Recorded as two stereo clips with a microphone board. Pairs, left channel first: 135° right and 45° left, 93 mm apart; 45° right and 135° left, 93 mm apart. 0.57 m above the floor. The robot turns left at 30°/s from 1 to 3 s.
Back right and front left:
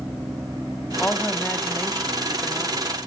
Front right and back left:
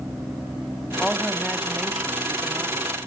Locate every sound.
1.0 s a woman speaking: 125° right, 1.0 m; by 3.0 s 175° left, 1.0 m